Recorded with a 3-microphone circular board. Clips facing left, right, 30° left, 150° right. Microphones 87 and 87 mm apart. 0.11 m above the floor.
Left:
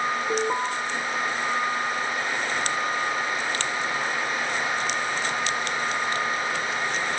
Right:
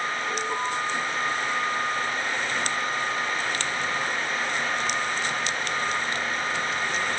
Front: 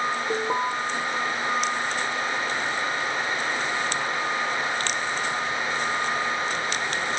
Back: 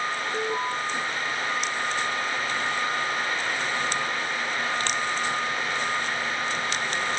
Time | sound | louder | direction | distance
0.3 | an alarm | left 4 dB, front 3 dB | 40° left | 7.5 m